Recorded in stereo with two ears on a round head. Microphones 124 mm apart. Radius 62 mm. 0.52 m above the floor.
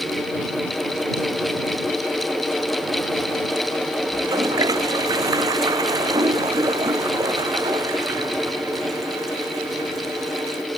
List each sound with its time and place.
4.1 s a toilet flushing: 25° right (ahead or behind)